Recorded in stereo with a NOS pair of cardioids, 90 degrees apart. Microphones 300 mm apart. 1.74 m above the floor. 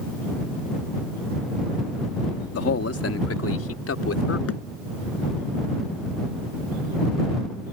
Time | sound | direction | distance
2.5 | a man speaking | 45° left | ?
4.5 | a thud | 45° left | ?